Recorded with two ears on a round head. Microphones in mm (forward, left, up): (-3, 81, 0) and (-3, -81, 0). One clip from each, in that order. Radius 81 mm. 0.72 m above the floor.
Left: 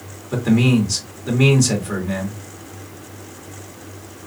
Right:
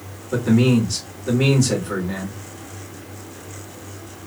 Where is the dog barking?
No dog barking in this recording.